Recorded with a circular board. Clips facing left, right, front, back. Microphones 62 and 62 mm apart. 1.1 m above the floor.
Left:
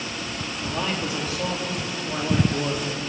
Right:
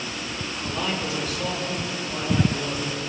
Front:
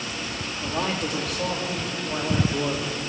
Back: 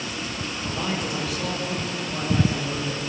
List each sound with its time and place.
0.6 s a man speaking: 25° left, 2.5 m; by 3.0 s 45° left, 3 m